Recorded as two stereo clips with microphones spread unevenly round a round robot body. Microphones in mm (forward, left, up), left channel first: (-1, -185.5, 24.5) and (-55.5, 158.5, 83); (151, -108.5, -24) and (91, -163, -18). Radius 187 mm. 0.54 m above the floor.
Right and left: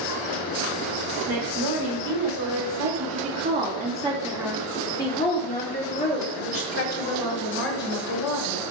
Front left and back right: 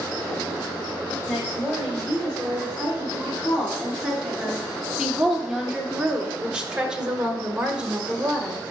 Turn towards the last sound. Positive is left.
turn(degrees=-60)